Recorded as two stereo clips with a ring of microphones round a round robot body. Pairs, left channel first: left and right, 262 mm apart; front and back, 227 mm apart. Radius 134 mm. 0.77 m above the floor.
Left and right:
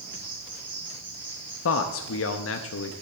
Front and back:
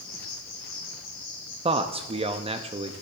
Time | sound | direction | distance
0.0 | an insect | 20° right | 4 m
1.6 | a man speaking | 115° left | 0.7 m